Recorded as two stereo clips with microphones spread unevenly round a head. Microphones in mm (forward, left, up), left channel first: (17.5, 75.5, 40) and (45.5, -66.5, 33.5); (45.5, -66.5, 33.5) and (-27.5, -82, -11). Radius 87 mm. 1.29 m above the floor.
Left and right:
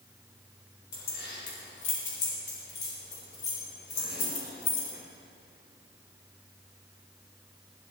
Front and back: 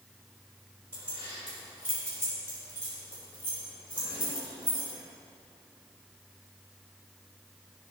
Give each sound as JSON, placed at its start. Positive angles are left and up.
{"t": 0.9, "sound": "keys jangling", "azimuth_deg": 110, "distance_m": 3.0}